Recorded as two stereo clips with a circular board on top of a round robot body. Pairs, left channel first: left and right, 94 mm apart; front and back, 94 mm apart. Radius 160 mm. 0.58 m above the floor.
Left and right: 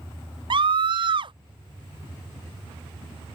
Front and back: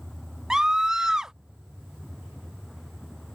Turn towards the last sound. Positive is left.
turn(degrees=-95)